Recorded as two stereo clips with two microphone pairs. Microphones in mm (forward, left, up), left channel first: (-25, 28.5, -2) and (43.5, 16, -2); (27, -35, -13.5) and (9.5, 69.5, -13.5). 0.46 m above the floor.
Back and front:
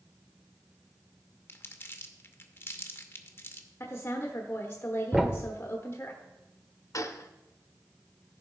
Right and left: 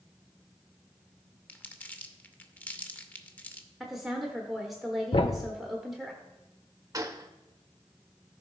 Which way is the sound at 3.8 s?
175° right.